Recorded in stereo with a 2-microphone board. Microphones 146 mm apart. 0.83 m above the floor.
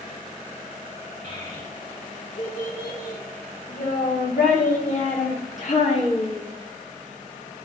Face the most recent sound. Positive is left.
turn(degrees=40)  # may be behind; listen again after turning